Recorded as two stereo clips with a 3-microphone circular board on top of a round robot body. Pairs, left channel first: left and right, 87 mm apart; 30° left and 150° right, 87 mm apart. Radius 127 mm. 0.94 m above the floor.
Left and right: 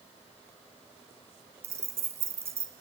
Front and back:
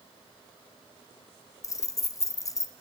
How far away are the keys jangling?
About 0.6 m.